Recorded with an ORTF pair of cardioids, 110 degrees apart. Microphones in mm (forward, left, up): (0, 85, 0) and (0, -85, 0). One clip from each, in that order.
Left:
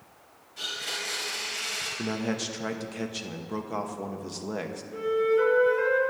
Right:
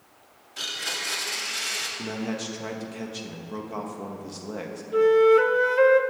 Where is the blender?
60° right, 1.6 m.